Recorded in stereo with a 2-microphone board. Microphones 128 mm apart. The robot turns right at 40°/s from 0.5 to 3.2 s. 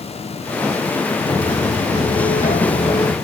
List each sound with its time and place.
1.2 s footsteps: 40° left (ahead or behind), 4 m